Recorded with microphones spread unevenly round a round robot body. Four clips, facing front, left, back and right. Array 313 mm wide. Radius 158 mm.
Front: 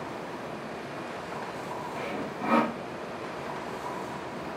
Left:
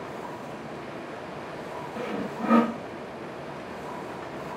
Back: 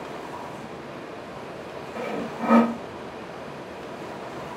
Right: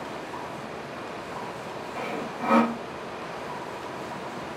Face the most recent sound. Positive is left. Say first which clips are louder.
# left 1 dB, back 8 dB
turn(degrees=170)